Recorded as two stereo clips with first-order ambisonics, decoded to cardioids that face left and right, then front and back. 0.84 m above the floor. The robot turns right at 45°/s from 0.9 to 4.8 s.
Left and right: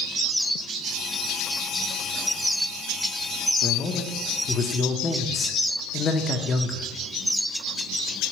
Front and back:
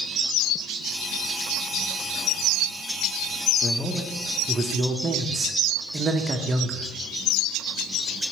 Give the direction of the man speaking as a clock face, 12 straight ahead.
10 o'clock.